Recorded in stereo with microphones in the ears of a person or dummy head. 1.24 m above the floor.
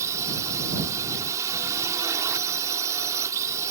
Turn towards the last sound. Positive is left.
turn(degrees=-20)  # may be behind; listen again after turning